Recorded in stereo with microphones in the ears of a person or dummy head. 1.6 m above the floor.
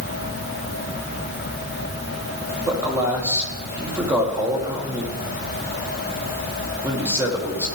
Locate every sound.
2.7 s a man speaking: 5° right (ahead or behind), 2.0 m